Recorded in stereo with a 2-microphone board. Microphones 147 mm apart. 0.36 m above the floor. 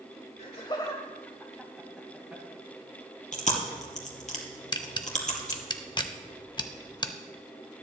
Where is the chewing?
55° left (ahead or behind), 2 m.